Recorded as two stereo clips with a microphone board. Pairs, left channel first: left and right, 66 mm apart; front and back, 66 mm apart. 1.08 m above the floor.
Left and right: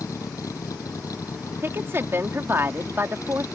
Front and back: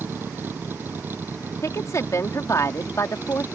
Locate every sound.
0.0 s a vehicle: 120° left
1.6 s a woman speaking: 40° right